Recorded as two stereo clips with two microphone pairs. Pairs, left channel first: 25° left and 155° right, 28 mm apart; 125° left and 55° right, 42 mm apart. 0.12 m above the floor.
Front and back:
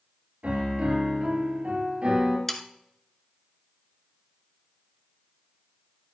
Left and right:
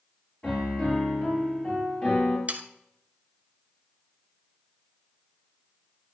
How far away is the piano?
About 3 m.